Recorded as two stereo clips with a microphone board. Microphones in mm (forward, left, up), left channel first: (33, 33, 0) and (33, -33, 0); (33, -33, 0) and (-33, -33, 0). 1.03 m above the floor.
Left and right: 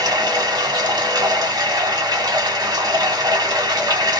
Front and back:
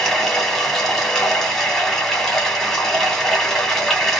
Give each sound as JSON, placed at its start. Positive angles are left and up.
{"t": 0.0, "sound": "running water", "azimuth_deg": -85, "distance_m": 1.2}